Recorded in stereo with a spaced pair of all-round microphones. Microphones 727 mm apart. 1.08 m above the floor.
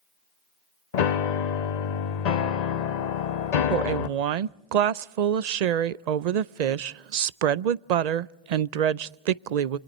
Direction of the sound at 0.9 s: 65° left (ahead or behind).